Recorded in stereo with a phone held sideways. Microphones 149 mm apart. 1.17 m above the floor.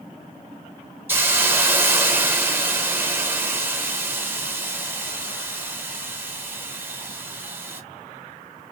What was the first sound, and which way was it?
A hiss, 15° right (ahead or behind).